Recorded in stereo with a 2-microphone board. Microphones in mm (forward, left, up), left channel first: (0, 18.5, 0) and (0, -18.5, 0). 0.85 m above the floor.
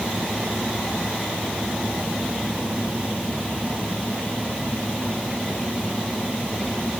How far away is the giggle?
I don't hear a giggle.